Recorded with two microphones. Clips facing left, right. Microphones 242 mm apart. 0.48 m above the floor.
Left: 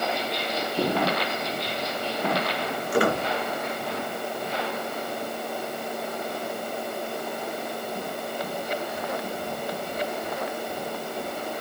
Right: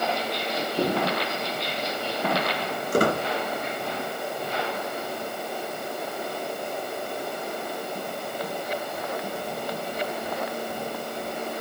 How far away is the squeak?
About 3 m.